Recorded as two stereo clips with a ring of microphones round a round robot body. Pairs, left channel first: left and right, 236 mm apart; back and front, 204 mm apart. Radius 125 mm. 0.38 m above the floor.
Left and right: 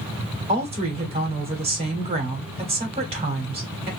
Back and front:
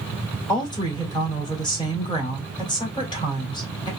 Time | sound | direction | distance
0.5 | a woman speaking | 130° right | 1.6 m